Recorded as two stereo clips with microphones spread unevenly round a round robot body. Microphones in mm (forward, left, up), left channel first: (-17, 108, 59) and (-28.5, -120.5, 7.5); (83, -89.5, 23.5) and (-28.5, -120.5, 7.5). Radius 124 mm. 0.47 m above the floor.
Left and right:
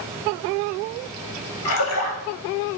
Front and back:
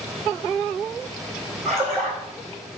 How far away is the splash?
About 2 m.